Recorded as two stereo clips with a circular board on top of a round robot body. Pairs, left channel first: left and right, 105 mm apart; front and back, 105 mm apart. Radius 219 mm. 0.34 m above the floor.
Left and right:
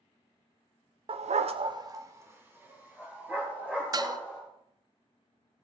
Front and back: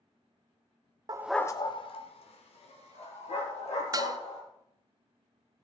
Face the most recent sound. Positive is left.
turn(degrees=-135)